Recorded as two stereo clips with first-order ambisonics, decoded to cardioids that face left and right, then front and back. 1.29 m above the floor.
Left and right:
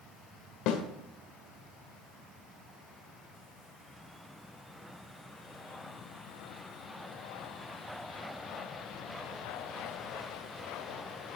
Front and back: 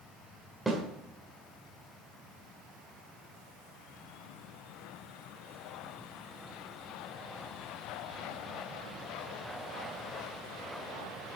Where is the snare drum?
100° left, 1.6 m.